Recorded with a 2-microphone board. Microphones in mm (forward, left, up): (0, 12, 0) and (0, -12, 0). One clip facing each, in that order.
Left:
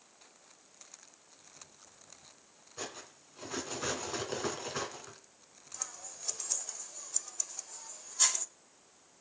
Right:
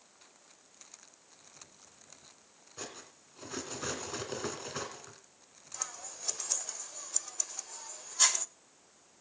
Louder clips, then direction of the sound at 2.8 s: Left 2 dB; centre (ahead or behind).